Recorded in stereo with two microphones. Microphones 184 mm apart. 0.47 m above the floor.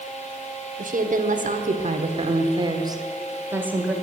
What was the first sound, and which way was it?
A woman speaking, 45° right (ahead or behind).